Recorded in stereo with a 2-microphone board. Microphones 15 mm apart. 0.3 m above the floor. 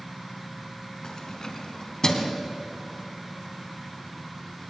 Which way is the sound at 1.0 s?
40° left (ahead or behind).